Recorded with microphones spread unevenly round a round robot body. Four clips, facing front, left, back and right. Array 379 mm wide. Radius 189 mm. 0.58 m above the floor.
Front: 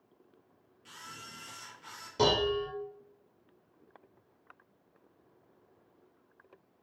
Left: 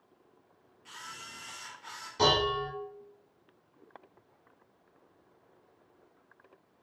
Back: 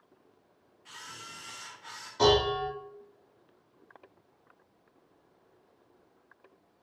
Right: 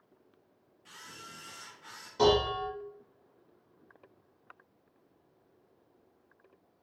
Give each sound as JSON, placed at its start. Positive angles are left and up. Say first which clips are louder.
{"t": 0.8, "sound": "a camera shutter", "louder": "left 3 dB, back 2 dB", "azimuth_deg": -10, "distance_m": 1.5}
{"t": 2.2, "sound": "dishes clattering", "louder": "right 2 dB, back 4 dB", "azimuth_deg": -5, "distance_m": 1.4}